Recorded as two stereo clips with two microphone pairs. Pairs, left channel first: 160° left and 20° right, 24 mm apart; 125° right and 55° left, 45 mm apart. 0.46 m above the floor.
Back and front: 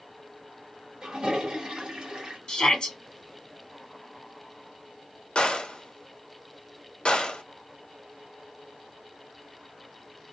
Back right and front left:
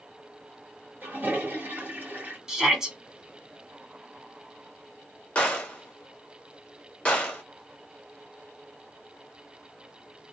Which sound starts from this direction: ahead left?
A toilet flushing, at 1.0 s.